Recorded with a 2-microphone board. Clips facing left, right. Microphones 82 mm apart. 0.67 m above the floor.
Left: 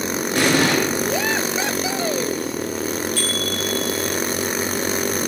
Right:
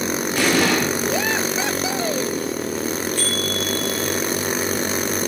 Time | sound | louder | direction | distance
0.3 | an explosion | left 1 dB | 75° left (ahead or behind) | 7 m
3.2 | a bicycle bell | even | 80° left | 5.5 m